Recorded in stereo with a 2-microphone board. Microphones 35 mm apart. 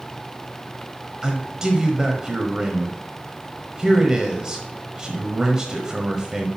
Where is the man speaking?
20° right (ahead or behind), 1.0 m.